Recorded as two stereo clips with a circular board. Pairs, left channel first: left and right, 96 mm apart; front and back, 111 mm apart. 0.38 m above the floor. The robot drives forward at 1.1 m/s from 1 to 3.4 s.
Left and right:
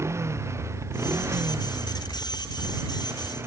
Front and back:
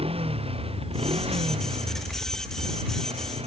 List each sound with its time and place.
0.0 s a motorcycle: 150° right; by 3.5 s 155° right